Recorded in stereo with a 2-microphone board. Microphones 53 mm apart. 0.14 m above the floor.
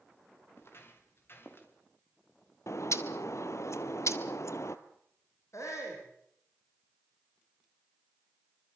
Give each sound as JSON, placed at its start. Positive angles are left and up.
{"t": 0.6, "sound": "footsteps", "side_deg": 50, "distance_m": 6.5}
{"t": 2.7, "sound": "a bird", "side_deg": 65, "distance_m": 1.7}
{"t": 5.5, "sound": "a shout", "side_deg": 70, "distance_m": 9.5}